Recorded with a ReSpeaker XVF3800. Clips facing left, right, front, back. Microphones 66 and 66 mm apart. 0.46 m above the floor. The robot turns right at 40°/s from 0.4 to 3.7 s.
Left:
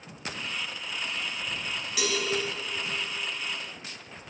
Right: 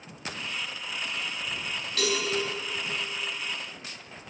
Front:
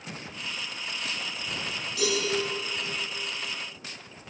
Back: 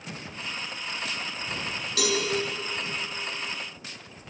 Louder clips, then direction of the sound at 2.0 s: Right 2 dB, back 1 dB; 175° left.